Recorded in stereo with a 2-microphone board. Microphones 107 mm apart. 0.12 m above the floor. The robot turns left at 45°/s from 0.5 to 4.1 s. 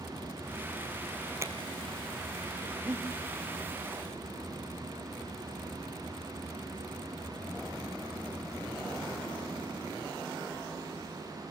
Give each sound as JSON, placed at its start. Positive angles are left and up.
{"t": 1.4, "sound": "a finger snap", "side_deg": -25, "distance_m": 2.0}
{"t": 2.8, "sound": "breathing", "side_deg": -30, "distance_m": 3.0}